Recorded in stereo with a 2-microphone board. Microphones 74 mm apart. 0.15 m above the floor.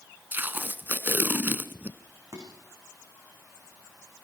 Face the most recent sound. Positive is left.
turn(degrees=-55)  # may be behind; listen again after turning